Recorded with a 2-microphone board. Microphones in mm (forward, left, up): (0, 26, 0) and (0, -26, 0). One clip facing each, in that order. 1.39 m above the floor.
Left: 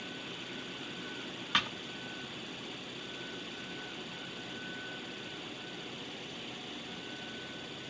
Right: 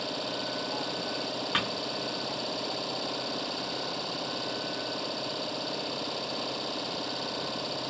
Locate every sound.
0.0 s an engine running: 75° right (ahead or behind)
1.5 s a thud: 5° right (ahead or behind)